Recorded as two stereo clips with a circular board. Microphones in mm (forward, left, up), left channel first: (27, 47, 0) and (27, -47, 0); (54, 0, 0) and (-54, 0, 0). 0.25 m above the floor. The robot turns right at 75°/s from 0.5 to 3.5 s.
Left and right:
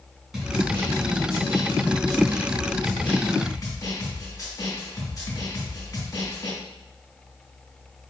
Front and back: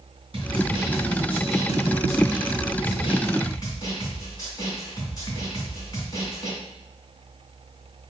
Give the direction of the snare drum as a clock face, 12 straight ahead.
6 o'clock.